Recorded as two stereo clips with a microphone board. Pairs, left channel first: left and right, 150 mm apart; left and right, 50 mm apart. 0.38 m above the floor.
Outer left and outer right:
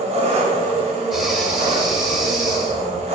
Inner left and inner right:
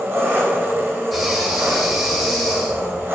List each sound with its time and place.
0.0 s an engine running: 45° right (ahead or behind), 0.8 m
1.1 s breathing: centre (ahead or behind), 0.5 m